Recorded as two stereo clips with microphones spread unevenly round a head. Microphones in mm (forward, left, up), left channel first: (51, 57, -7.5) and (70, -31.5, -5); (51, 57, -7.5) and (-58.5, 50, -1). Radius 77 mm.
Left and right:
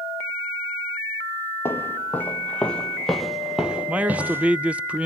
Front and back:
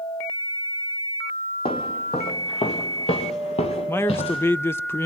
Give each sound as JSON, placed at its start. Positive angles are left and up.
{"t": 1.6, "sound": "footsteps", "azimuth_deg": 40, "distance_m": 2.0}
{"t": 3.9, "sound": "a man speaking", "azimuth_deg": -20, "distance_m": 0.5}